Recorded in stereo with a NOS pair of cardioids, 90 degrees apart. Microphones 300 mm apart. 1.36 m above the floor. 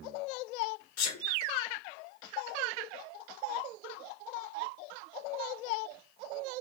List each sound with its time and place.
1.0 s a sneeze: 60° left, 0.7 m